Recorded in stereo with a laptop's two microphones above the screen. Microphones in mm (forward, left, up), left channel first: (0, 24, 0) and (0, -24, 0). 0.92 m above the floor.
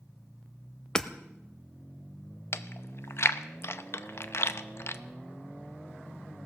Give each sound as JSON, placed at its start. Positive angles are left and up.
{"t": 0.9, "sound": "hammering", "side_deg": 15, "distance_m": 0.8}
{"t": 2.5, "sound": "chewing", "side_deg": 60, "distance_m": 0.6}